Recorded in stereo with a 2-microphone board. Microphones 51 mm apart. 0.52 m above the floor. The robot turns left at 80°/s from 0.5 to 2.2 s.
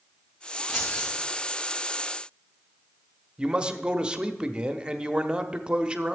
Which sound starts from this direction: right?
A man speaking, at 3.4 s.